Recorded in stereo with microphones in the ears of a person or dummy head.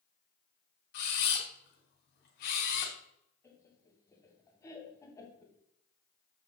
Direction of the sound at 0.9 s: 45° left (ahead or behind).